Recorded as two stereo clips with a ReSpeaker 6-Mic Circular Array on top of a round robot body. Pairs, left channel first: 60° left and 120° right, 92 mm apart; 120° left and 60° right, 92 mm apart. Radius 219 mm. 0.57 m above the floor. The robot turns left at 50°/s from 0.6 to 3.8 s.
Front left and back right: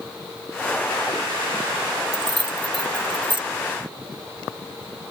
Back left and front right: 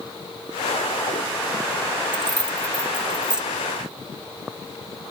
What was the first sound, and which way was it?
Keys jangling, 80° right.